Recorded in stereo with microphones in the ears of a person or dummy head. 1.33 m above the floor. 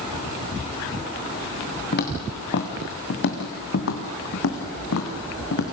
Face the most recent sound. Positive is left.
turn(degrees=70)  # may be behind; listen again after turning